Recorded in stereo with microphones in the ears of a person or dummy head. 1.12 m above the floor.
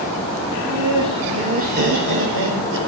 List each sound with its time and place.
0.5 s laughter: 5° left (ahead or behind), 1.0 m; by 2.8 s 60° right (ahead or behind), 1.9 m